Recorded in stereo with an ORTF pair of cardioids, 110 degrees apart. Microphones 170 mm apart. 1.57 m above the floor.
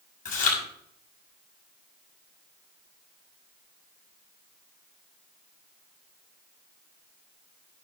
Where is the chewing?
55° left, 6.5 m.